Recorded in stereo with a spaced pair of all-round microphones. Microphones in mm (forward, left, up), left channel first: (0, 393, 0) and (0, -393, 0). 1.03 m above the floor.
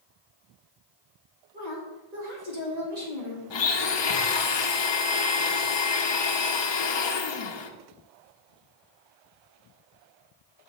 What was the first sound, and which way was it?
A woman speaking, 60° right (ahead or behind).